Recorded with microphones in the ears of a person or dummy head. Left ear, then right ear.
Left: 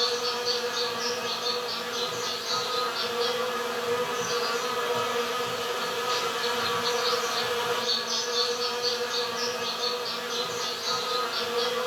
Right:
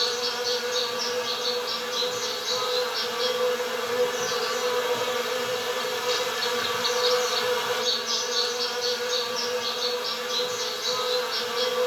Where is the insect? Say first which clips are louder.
Right 1 dB; 65° right (ahead or behind), 1.2 m.